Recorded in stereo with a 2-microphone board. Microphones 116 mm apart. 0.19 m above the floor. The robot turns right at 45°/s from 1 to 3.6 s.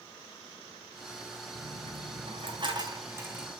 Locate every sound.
1.6 s a dropped coin: 85° right, 3 m; by 3.5 s 5° right (ahead or behind), 3 m